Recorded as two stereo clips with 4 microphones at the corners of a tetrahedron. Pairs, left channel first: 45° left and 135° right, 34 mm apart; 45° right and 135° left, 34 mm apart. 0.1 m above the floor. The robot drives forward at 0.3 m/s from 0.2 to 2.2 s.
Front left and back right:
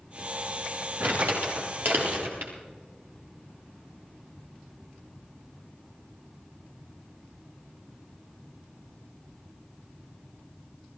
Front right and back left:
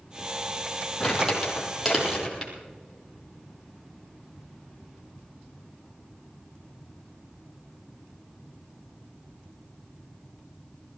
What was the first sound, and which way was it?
Crumpling, 125° right.